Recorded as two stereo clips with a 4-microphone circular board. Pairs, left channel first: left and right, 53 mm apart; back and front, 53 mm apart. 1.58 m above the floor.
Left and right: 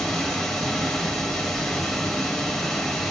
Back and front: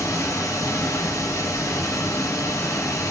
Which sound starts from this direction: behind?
Running water, at 0.0 s.